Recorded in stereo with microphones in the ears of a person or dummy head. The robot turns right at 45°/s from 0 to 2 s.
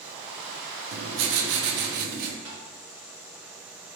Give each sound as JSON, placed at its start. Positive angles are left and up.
{"t": 0.9, "sound": "writing", "azimuth_deg": -100, "distance_m": 0.7}
{"t": 2.5, "sound": "tapping", "side_deg": -25, "distance_m": 1.9}